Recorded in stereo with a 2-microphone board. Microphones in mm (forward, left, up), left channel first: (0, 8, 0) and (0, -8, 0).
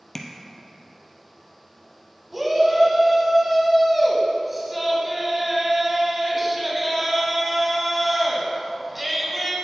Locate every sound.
0.1 s tapping: 10° left (ahead or behind), 0.8 m
2.3 s a shout: 15° right (ahead or behind), 1.0 m